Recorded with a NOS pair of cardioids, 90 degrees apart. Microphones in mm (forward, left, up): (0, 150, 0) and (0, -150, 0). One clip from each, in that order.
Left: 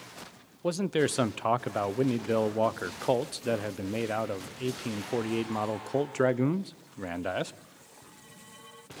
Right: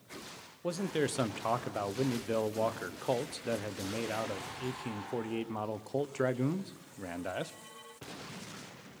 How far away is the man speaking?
About 1.0 m.